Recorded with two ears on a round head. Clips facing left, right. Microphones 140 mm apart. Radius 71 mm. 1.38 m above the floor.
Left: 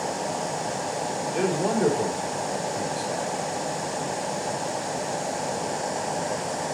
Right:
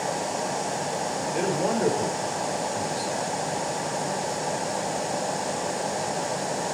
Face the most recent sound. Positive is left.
turn(degrees=15)  # may be behind; listen again after turning